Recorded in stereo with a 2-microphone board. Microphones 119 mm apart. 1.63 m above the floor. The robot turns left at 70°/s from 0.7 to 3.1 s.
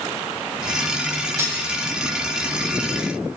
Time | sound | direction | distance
1.4 | cutlery clinking | 25° right (ahead or behind) | 1.2 m